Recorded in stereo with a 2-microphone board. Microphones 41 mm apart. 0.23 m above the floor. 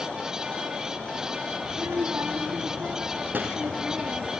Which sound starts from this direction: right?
A child speaking, at 1.6 s.